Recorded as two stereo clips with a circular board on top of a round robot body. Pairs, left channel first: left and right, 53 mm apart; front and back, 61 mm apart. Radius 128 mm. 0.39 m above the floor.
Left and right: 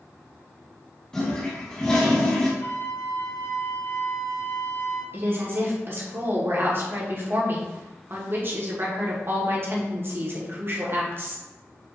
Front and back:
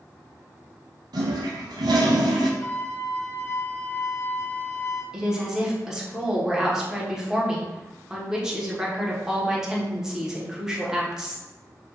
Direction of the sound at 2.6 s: 65° left.